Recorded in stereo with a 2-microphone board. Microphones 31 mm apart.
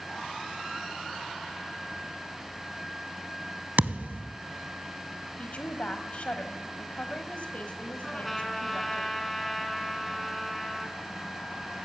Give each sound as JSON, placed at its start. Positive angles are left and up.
{"t": 3.8, "sound": "a thud", "side_deg": -75, "distance_m": 0.6}
{"t": 5.4, "sound": "a woman speaking", "side_deg": 45, "distance_m": 1.3}
{"t": 8.0, "sound": "a trumpet", "side_deg": 5, "distance_m": 1.4}